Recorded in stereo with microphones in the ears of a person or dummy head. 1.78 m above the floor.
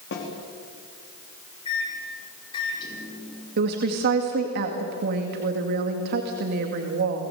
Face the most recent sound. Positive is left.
turn(degrees=-55)  # may be behind; listen again after turning